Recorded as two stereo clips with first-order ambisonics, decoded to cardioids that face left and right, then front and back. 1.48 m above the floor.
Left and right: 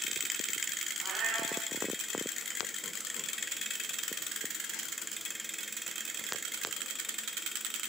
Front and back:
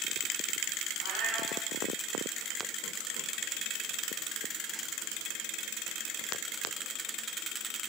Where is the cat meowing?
150° right, 7 m.